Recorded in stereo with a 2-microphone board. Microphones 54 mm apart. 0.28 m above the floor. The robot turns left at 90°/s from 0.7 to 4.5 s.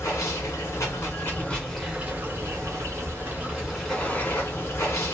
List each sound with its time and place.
0.0 s running water: 95° left, 1.3 m; by 5.1 s 110° left, 1.3 m